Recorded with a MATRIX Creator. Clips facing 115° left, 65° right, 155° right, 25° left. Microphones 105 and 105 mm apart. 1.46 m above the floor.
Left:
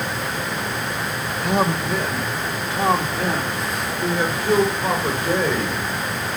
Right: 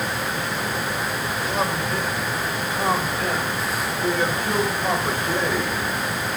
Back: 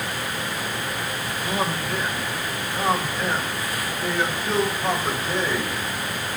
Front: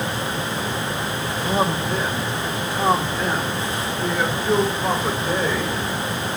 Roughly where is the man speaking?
Left.